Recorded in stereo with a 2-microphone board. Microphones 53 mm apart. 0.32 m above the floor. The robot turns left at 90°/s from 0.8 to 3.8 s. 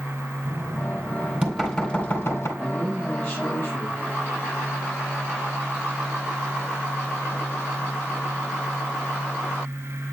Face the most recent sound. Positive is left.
turn(degrees=85)